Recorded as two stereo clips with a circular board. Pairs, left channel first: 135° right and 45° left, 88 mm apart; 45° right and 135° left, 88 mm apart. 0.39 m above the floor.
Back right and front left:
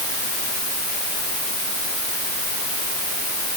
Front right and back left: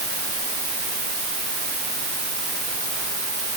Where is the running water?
No running water in this recording.